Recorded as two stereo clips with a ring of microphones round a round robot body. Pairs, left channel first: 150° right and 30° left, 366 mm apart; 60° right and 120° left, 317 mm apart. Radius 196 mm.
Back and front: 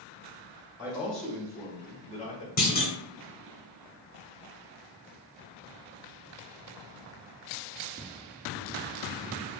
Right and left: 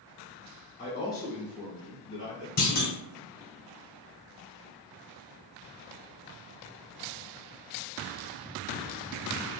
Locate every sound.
0.8 s a man speaking: 50° right, 1.0 m; by 2.5 s 150° left, 1.2 m
2.6 s a clunk: 100° right, 1.0 m